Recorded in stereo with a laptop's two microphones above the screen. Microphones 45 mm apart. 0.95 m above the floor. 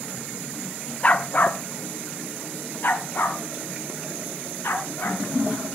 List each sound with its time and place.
1.0 s a dog barking: 30° left (ahead or behind), 0.9 m; by 5.2 s 55° left (ahead or behind), 4 m